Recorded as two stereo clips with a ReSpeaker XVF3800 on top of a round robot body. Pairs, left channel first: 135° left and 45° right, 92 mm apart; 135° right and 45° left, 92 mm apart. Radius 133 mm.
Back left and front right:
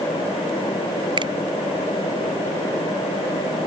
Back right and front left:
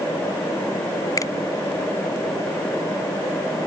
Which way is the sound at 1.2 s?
80° right.